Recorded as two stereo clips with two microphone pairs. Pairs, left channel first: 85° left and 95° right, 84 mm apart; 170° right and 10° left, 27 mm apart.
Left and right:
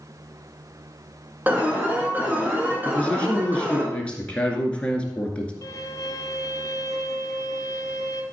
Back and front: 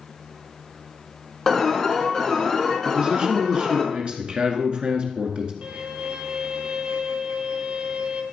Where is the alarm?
120° right, 2 m.